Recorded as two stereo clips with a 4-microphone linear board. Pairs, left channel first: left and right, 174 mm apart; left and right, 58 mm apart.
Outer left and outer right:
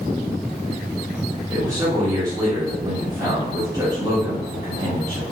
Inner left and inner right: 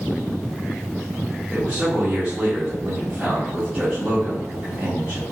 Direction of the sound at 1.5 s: 20° right (ahead or behind).